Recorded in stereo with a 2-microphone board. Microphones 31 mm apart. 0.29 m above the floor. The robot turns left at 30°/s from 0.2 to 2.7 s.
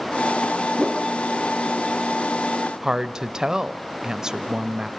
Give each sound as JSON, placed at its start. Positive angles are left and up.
{"t": 0.8, "sound": "a whoosh", "side_deg": -5, "distance_m": 0.6}
{"t": 2.8, "sound": "a woman speaking", "side_deg": -20, "distance_m": 1.0}